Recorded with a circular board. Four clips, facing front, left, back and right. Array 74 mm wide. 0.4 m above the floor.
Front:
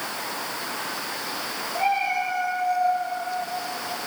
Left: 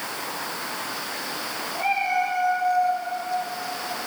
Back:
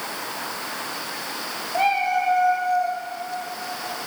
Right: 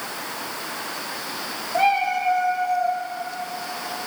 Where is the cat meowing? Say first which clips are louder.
Right 4 dB, back 3 dB; 125° right, 2.5 m.